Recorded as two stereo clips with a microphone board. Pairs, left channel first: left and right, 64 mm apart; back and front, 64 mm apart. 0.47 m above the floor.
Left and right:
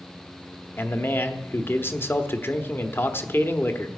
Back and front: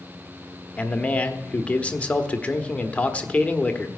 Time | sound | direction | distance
0.8 | a man speaking | 120° left | 1.2 m